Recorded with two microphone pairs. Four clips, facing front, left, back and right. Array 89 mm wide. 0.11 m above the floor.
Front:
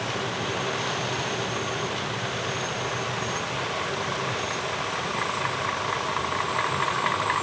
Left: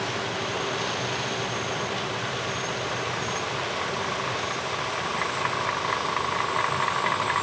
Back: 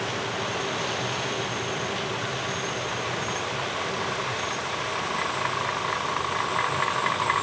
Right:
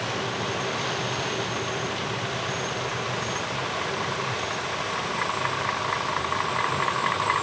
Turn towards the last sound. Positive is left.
No sound to turn to.